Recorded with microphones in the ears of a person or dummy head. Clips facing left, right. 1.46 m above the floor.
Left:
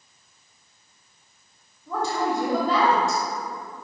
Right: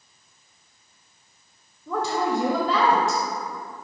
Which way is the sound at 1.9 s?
55° right (ahead or behind).